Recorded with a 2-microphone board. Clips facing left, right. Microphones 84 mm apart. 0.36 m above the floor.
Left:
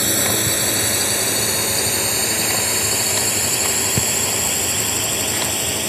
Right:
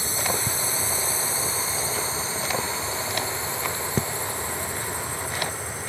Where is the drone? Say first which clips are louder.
Left 6 dB; 70° left (ahead or behind); by 5.9 s 75° left (ahead or behind).